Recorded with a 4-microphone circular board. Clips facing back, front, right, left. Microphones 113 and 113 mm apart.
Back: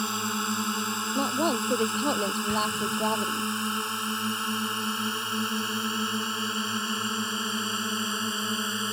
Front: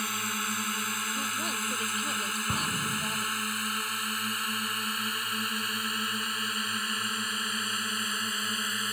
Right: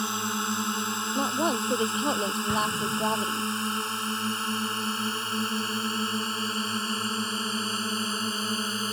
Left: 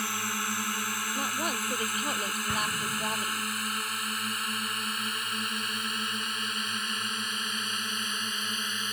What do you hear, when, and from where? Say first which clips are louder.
0.0 s a drone: back 5 dB, right 4 dB; 140° right; by 8.9 s 130° right
1.1 s a woman speaking: back 9 dB, right 8 dB; 150° right
2.5 s an explosion: back 5 dB, right 4 dB; 25° right